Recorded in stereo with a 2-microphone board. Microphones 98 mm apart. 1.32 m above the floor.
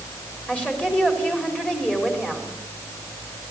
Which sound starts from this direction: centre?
A woman speaking, at 0.5 s.